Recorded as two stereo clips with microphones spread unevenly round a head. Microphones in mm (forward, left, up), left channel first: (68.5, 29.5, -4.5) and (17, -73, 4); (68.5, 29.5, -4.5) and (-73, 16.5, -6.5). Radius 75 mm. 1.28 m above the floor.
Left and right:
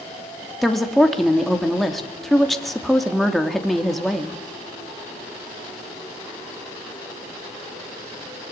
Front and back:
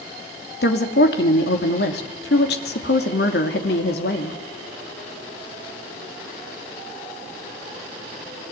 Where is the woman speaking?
25° right, 3 m.